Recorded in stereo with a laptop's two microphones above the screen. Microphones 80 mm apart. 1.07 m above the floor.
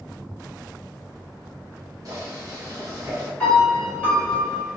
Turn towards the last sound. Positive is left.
turn(degrees=15)  # may be behind; listen again after turning